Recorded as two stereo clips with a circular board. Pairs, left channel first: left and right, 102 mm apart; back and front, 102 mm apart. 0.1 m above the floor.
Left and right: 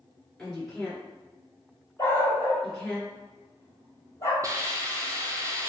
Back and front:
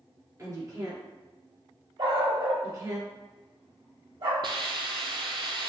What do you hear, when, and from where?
0.4 s a woman speaking: 15° left, 1.7 m
2.0 s a dog barking: 25° left, 1.2 m
4.4 s a hiss: 35° right, 0.6 m